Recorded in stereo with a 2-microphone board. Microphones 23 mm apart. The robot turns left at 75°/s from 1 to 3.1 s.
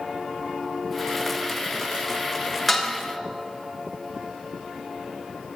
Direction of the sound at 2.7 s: 5° left (ahead or behind).